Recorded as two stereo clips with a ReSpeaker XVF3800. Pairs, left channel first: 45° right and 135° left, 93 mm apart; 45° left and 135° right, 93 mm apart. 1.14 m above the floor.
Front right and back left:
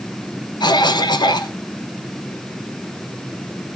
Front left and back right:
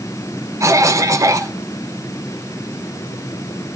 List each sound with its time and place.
0.6 s a cough: 80° right, 1.0 m